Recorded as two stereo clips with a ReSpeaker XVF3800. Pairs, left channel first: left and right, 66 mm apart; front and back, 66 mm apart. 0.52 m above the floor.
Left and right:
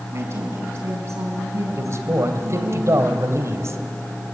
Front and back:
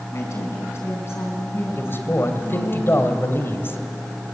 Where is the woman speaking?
40° right, 6 m; by 2.8 s 60° right, 7 m.